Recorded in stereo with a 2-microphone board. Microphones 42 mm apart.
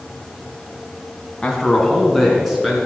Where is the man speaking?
15° left (ahead or behind), 2 m; by 2.8 s 5° right (ahead or behind), 3.5 m.